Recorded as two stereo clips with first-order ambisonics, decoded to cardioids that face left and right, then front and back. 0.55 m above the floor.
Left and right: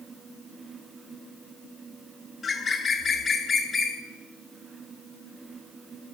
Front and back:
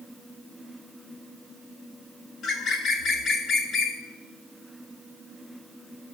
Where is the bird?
30° left, 0.9 m.